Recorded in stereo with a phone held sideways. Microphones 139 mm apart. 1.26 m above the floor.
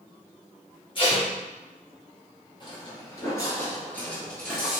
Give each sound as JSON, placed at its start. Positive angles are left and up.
{"t": 0.9, "sound": "tape being pulled", "side_deg": 35, "distance_m": 1.5}
{"t": 2.6, "sound": "footsteps", "side_deg": 35, "distance_m": 1.6}